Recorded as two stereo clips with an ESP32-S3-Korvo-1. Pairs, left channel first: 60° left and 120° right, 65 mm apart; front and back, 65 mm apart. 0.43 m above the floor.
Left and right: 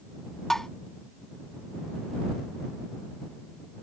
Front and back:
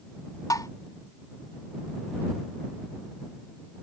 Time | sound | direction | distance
0.5 | tapping | 25° right | ?